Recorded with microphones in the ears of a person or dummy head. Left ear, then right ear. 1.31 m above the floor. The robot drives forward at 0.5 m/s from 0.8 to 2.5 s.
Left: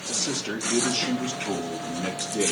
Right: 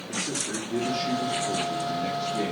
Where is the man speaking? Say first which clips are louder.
Left 2 dB; 45° left (ahead or behind), 1.5 m; by 2.5 s 30° left (ahead or behind), 2 m.